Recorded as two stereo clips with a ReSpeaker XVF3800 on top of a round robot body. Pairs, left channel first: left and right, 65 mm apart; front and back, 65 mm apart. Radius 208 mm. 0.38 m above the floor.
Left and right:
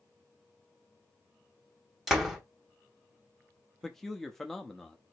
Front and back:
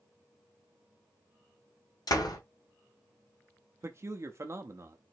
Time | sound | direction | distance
2.1 | a door slam | straight ahead | 2 m
3.8 | a man speaking | 175° left | 0.9 m